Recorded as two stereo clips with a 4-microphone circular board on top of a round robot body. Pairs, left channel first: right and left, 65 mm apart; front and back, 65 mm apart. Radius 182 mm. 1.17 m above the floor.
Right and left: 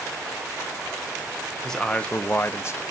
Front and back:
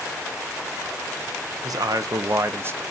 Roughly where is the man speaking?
Behind.